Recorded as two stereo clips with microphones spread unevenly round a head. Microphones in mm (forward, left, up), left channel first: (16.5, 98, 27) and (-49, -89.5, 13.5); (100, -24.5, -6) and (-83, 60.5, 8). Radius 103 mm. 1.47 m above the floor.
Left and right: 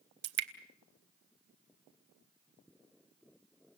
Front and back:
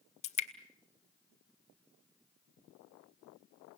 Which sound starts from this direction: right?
Dripping, at 0.2 s.